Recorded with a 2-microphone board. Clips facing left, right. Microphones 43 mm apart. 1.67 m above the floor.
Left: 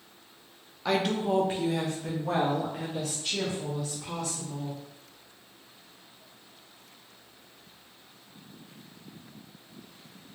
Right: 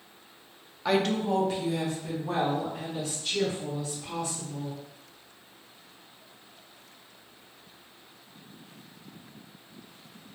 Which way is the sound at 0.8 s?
5° right (ahead or behind).